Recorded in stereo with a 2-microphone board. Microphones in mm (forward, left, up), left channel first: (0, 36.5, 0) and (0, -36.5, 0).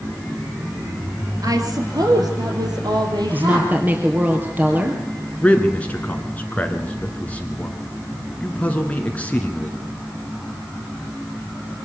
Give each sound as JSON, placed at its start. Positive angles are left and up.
{"t": 1.4, "sound": "a woman speaking", "side_deg": -55, "distance_m": 2.5}
{"t": 3.3, "sound": "a woman speaking", "side_deg": -25, "distance_m": 2.5}
{"t": 5.4, "sound": "a man speaking", "side_deg": 20, "distance_m": 1.8}